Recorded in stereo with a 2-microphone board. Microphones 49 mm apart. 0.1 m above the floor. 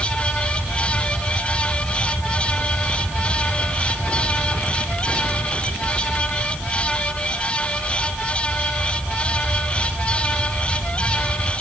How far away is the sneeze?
I don't hear a sneeze.